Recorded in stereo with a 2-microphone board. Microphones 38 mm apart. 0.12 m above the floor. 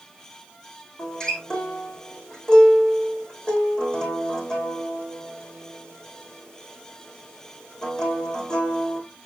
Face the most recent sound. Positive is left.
turn(degrees=20)  # may be behind; listen again after turning